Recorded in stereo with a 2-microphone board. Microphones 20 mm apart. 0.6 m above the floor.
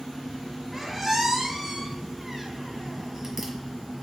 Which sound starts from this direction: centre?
A squeak, at 0.7 s.